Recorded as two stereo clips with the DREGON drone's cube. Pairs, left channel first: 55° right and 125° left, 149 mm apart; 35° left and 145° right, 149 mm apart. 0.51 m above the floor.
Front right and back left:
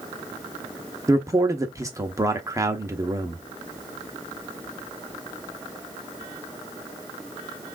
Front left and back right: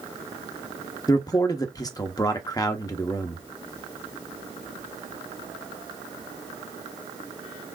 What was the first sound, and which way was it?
A man speaking, 75° left.